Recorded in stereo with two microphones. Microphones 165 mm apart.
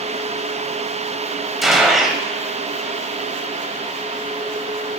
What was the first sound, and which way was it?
A gunshot, centre (ahead or behind).